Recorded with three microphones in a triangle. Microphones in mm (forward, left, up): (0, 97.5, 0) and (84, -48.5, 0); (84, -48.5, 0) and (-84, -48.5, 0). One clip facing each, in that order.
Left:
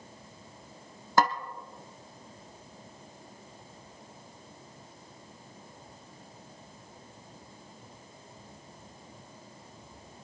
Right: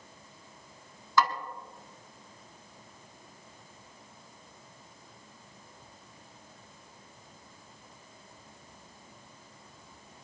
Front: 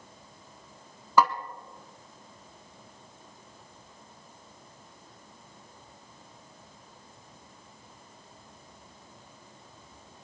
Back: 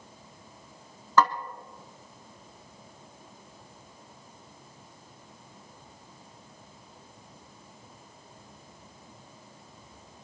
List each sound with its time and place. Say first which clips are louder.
1.2 s a snare drum: left 2 dB, even; 80° left, 0.8 m